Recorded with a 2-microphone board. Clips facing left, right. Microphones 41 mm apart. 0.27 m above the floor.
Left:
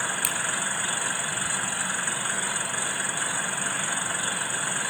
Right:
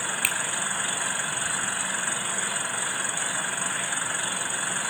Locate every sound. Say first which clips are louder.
0.2 s a finger snap: right 3 dB; 35° right (ahead or behind), 3.5 m